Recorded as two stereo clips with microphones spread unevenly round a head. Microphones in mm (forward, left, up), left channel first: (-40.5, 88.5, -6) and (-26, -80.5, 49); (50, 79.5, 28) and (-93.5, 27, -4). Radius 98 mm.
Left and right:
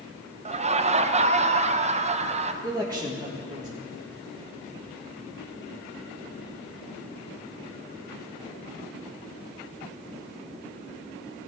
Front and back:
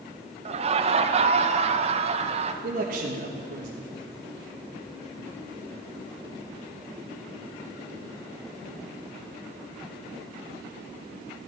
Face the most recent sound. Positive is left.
turn(degrees=-160)